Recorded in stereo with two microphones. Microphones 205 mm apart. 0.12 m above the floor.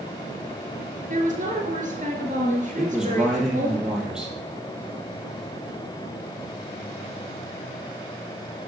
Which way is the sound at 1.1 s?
40° right (ahead or behind).